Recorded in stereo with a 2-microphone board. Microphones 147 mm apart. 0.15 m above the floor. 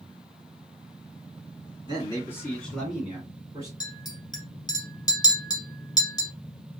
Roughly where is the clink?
Left.